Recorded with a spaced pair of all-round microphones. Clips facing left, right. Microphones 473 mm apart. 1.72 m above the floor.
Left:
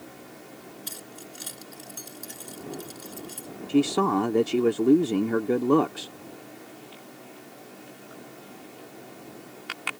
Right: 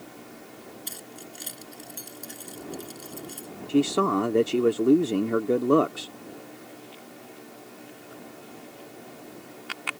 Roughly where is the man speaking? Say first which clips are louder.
Even; centre.